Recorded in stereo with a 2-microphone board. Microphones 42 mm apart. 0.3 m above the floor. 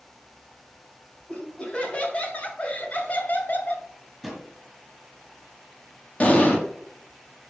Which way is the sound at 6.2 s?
30° left (ahead or behind).